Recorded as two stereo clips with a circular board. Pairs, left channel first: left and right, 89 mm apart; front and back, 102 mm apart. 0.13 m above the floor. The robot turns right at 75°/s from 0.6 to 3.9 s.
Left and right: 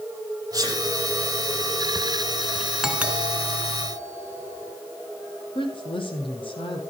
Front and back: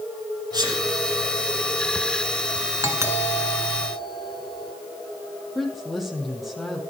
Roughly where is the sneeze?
Behind right.